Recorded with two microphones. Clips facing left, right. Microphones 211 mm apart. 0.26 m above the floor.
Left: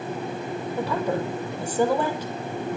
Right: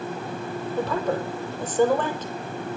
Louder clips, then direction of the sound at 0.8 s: Even; 10° left (ahead or behind).